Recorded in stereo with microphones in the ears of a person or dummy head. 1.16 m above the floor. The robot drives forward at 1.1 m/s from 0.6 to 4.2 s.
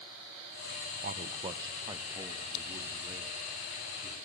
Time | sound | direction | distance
1.0 | a man speaking | 40° right (ahead or behind) | 0.7 m